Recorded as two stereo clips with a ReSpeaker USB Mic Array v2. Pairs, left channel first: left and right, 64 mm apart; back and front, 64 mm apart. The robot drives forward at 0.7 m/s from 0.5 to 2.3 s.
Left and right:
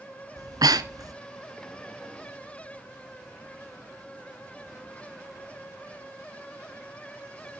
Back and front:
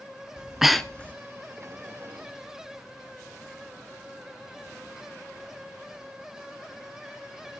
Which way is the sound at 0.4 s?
75° right.